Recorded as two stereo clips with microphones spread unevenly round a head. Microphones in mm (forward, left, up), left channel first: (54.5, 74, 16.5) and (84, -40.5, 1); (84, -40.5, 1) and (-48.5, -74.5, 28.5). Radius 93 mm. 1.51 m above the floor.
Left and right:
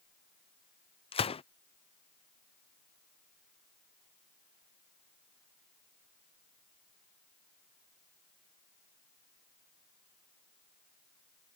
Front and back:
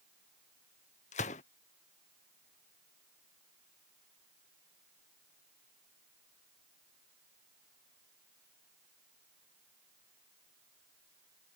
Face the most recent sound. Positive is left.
turn(degrees=60)